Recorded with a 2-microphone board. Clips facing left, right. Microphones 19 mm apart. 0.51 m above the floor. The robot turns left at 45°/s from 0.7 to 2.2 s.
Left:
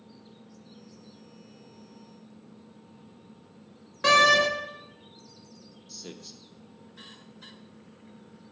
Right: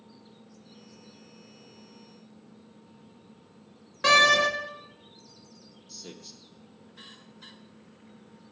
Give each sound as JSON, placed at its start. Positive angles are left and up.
{"t": 4.0, "sound": "a door slam", "side_deg": -5, "distance_m": 0.6}
{"t": 5.9, "sound": "a man speaking", "side_deg": 10, "distance_m": 0.6}